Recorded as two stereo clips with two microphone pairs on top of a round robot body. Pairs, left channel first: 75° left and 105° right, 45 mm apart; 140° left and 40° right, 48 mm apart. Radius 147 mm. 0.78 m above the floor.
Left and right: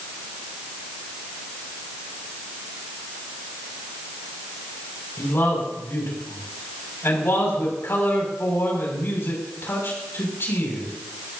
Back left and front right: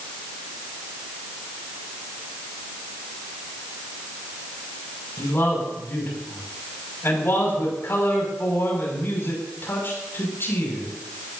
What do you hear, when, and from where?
5.2 s a man speaking: 105° left, 6.5 m